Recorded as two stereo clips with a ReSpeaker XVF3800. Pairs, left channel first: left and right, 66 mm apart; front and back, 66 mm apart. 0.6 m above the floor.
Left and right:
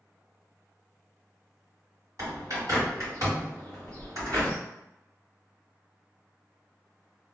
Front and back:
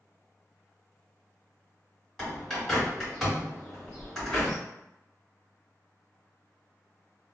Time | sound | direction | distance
2.2 | a bird | 85° right | 1.8 m